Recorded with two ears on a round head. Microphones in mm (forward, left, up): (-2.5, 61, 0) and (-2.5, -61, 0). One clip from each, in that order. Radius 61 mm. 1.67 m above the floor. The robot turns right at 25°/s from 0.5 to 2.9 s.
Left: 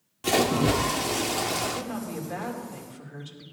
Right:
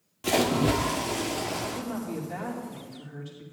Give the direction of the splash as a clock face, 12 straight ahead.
12 o'clock.